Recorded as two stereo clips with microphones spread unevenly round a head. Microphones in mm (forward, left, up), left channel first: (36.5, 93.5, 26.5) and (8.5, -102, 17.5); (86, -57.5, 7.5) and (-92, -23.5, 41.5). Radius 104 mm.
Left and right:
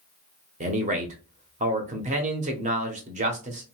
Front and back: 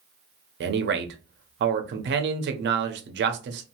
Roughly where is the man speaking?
Behind right.